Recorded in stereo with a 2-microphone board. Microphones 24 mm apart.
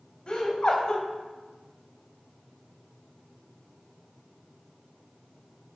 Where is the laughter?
40° left (ahead or behind), 1.3 m.